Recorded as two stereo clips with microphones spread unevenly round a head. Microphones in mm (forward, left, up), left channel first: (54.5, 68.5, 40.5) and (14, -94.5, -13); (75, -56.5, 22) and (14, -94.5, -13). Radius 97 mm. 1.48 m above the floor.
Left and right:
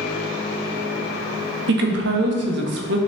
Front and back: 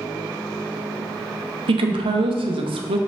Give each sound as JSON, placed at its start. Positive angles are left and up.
{"t": 1.7, "sound": "a woman speaking", "azimuth_deg": -145, "distance_m": 0.6}